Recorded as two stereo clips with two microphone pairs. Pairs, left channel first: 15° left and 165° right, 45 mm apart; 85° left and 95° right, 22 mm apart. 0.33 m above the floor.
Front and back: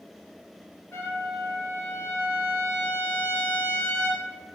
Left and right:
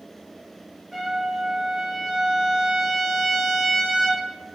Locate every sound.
0.9 s a trumpet: straight ahead, 1.4 m